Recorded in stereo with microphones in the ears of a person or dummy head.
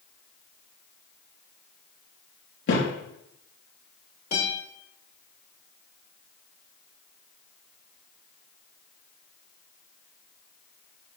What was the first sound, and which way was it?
A thud, 70° left (ahead or behind).